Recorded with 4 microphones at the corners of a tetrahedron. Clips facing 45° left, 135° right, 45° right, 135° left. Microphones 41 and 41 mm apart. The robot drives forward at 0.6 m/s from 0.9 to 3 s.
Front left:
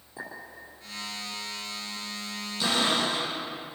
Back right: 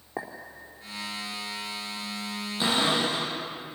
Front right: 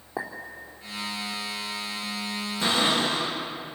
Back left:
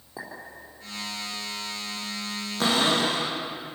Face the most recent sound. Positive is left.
turn(degrees=160)